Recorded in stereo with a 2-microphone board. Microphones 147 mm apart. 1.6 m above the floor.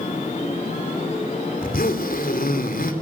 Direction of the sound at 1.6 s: 75° left (ahead or behind).